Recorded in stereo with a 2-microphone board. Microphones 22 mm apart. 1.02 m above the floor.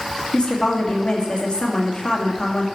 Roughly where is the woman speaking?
Left.